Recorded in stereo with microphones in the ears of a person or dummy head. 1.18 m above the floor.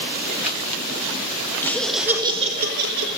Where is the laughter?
10° left (ahead or behind), 1.7 m; by 3.1 s 70° right (ahead or behind), 1.6 m.